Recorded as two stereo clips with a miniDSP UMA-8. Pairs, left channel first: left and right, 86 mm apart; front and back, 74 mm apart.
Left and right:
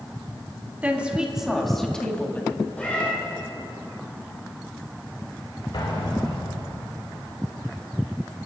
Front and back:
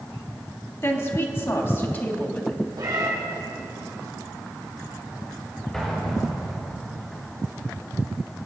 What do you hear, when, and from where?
0.8 s a woman speaking: 30° right, 1.9 m; by 2.6 s 50° left, 1.7 m
2.8 s a cat meowing: 160° left, 4.5 m
5.7 s an explosion: 85° left, 4 m